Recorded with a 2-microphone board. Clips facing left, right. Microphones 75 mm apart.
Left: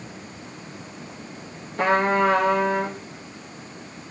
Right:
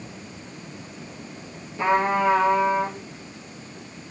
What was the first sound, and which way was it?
A trumpet, 70° left (ahead or behind).